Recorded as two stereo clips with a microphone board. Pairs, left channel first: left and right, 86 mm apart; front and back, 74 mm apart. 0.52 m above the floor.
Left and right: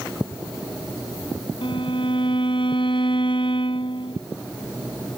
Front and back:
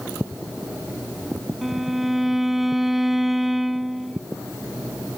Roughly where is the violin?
Left.